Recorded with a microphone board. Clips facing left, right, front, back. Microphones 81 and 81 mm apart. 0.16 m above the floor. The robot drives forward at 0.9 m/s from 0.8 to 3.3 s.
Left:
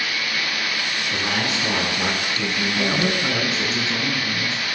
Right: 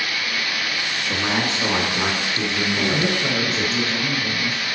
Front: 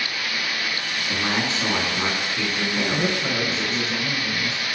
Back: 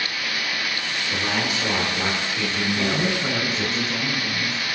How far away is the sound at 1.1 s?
About 2.5 m.